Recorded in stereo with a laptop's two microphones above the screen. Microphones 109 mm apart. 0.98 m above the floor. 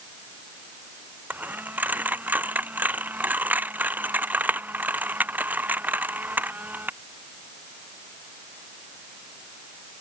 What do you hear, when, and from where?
1.3 s a dropped coin: 15° right (ahead or behind)